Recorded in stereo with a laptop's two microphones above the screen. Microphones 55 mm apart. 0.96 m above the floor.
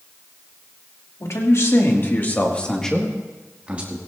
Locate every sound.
1.2 s a man speaking: 60° left (ahead or behind), 1.7 m; by 4.0 s 30° right (ahead or behind), 1.4 m